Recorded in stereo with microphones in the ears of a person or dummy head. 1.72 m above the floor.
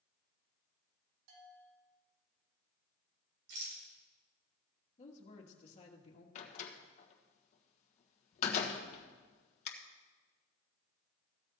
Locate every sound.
1.3 s a bell: 75° right (ahead or behind), 3 m
3.5 s a rattle: 65° right (ahead or behind), 4.5 m
5.0 s a woman speaking: 40° left (ahead or behind), 2 m
6.3 s a door slam: 40° left (ahead or behind), 1.4 m